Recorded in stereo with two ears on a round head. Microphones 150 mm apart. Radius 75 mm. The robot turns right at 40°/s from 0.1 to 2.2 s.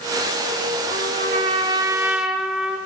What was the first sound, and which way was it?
A trumpet, 55° right.